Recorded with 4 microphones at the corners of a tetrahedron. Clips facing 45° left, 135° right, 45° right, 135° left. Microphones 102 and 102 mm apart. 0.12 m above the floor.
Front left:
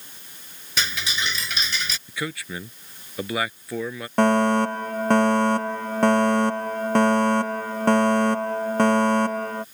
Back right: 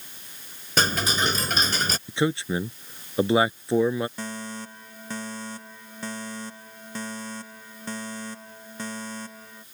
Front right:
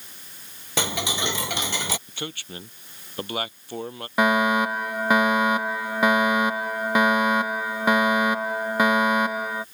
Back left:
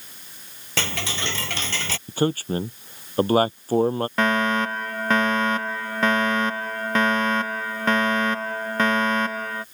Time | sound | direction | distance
0.8 | ticking | 115° right | ?
2.1 | a man speaking | 170° left | ?
4.2 | a fire alarm | 35° left | ?